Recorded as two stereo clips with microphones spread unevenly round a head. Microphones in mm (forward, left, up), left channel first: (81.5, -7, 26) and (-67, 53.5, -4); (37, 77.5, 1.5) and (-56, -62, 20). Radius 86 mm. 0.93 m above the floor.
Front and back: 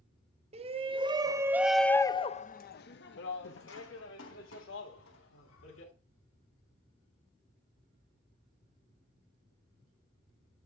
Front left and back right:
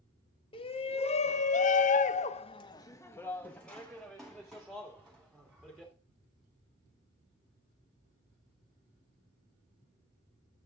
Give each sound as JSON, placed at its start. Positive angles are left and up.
{"t": 0.5, "sound": "a shout", "azimuth_deg": 110, "distance_m": 1.3}